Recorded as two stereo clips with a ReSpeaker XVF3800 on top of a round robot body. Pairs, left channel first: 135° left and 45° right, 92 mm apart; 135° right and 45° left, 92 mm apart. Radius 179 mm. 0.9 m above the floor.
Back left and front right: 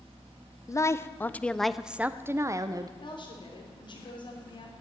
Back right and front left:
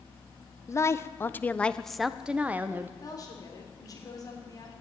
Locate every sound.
0.7 s a woman speaking: 175° left, 0.9 m; by 2.9 s 15° right, 0.9 m
3.0 s a woman speaking: 170° left, 3.5 m